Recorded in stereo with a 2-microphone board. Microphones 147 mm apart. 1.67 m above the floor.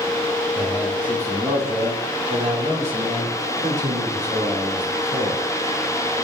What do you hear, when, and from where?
0.6 s a man speaking: 10° right (ahead or behind), 2.5 m; by 5.4 s 70° right (ahead or behind), 4 m